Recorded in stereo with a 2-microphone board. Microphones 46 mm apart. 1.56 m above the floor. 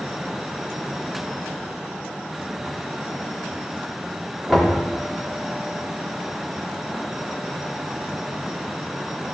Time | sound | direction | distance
4.5 | knocking | 5° left (ahead or behind) | 3 m